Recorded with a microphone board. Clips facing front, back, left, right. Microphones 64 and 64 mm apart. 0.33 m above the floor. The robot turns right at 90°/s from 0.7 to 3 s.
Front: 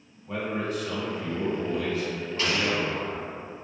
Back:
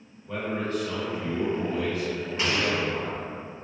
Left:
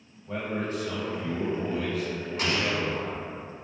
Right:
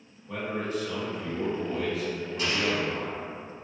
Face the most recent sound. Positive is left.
turn(degrees=165)